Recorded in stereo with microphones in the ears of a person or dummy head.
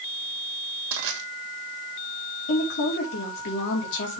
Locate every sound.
0.9 s crushing: 65° right (ahead or behind), 2 m
2.5 s a woman speaking: 60° left (ahead or behind), 2.5 m